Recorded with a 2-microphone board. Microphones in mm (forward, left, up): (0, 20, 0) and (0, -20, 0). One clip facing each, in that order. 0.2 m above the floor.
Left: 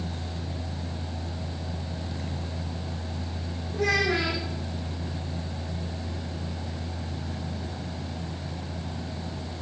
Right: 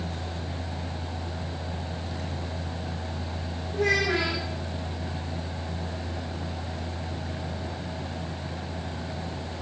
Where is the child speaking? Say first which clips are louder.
Even; 20° right (ahead or behind), 5.5 m.